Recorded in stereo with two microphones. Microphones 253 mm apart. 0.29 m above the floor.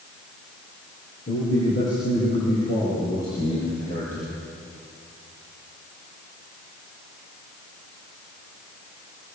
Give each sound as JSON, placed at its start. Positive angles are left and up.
{"t": 1.3, "sound": "a man speaking", "side_deg": 50, "distance_m": 8.5}